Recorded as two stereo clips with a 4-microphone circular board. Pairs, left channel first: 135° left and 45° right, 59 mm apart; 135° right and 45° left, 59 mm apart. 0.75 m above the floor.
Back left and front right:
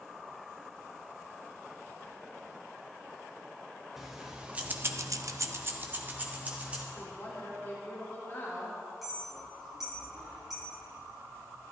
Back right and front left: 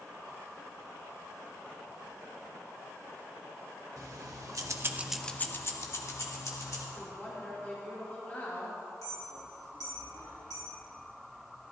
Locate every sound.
4.0 s keys jangling: 40° left, 1.5 m; by 6.8 s 110° right, 2.5 m
7.0 s a woman speaking: 175° left, 2 m
9.0 s a clink: 130° right, 3.5 m